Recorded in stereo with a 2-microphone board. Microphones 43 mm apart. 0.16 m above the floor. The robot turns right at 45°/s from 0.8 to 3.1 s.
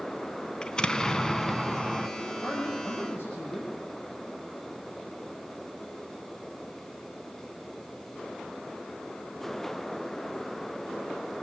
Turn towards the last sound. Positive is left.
turn(degrees=90)